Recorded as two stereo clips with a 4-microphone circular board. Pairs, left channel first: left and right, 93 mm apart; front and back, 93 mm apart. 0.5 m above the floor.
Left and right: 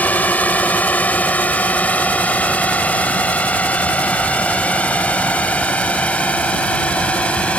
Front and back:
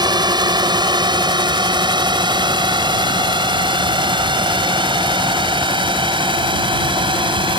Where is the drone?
160° left; by 7.6 s 165° left.